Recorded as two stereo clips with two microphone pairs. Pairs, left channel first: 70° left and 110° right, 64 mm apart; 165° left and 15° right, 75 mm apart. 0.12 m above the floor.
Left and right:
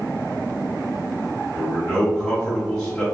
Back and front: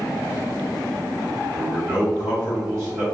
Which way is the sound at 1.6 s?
10° right.